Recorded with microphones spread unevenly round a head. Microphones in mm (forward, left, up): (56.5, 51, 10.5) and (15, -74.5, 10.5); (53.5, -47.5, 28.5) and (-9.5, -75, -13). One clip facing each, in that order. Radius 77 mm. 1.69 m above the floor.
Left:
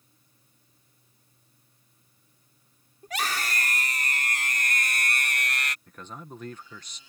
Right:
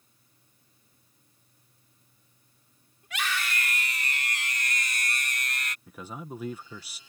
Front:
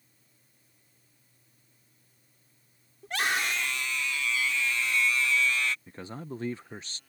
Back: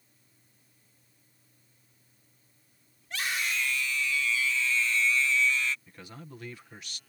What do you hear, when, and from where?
3.0 s a scream: 20° left; by 5.8 s 50° left
5.9 s a man speaking: 25° right